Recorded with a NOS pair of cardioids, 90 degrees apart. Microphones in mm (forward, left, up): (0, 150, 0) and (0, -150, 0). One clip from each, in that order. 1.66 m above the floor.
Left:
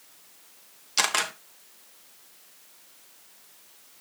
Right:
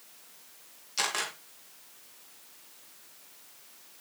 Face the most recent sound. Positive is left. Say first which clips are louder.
# left 6 dB
turn(degrees=55)